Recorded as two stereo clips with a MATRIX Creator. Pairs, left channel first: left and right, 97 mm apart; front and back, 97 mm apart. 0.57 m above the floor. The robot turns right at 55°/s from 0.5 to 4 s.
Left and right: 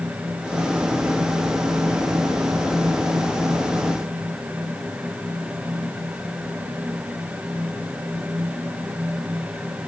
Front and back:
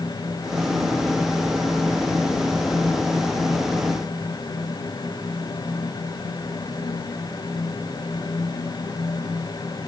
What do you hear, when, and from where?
Only background noise.